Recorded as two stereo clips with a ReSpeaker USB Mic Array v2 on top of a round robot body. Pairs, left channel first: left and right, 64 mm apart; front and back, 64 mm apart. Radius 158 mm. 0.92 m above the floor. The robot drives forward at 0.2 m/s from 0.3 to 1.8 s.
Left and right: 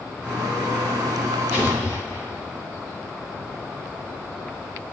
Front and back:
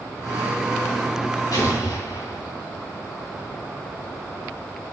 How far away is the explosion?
About 0.6 m.